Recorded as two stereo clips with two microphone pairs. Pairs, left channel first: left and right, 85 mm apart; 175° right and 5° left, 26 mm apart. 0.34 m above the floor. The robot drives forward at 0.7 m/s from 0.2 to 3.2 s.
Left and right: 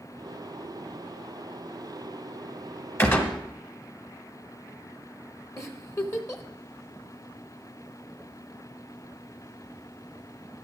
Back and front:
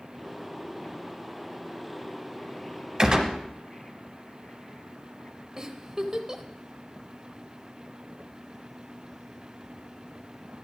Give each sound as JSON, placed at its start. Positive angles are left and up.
{"t": 3.0, "sound": "a gunshot", "azimuth_deg": 45, "distance_m": 1.3}
{"t": 5.6, "sound": "a giggle", "azimuth_deg": 60, "distance_m": 0.8}